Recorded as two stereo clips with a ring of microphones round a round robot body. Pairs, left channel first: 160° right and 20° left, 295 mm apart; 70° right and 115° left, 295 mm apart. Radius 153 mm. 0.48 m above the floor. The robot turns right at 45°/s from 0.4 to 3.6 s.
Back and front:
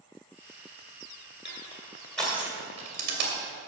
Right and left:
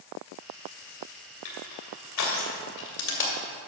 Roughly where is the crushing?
Right.